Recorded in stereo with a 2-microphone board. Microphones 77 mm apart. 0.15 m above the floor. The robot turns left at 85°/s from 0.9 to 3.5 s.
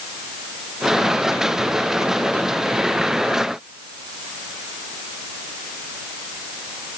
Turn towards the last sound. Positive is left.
No sound to turn to.